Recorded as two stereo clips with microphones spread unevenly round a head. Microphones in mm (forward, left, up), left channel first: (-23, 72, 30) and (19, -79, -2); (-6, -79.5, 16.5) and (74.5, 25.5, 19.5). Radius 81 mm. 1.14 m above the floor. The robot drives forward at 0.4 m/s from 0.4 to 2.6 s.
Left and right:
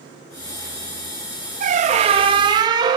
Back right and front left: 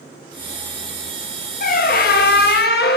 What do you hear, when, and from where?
1.6 s a squeak: 120° right, 0.7 m; by 3.0 s 140° right, 0.9 m